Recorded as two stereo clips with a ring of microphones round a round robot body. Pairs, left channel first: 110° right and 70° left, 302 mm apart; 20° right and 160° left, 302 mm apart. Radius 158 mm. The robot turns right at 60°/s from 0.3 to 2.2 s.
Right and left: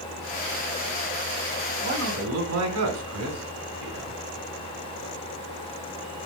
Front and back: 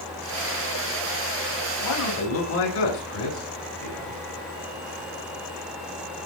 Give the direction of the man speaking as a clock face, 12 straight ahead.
12 o'clock.